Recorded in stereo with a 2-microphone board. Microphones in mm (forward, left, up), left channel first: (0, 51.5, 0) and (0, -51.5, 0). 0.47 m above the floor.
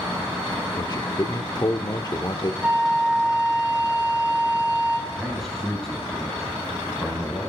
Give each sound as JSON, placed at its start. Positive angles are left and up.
{"t": 0.8, "sound": "a man speaking", "side_deg": 40, "distance_m": 0.9}
{"t": 2.6, "sound": "a flute", "side_deg": -10, "distance_m": 4.0}
{"t": 5.1, "sound": "a man speaking", "side_deg": 5, "distance_m": 2.5}